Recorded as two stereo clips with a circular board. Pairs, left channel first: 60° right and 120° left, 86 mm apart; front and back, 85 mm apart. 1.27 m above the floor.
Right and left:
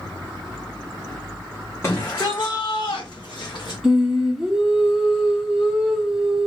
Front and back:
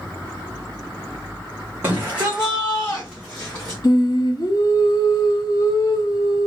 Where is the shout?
115° right, 1.2 m; by 3.8 s 55° right, 1.6 m.